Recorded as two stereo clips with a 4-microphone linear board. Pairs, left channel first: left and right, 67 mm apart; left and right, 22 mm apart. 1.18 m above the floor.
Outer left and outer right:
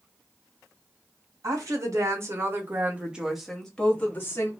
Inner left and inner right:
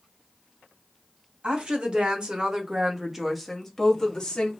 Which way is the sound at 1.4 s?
55° right (ahead or behind).